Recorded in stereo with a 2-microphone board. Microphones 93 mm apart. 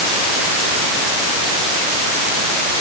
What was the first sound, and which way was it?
Only background noise.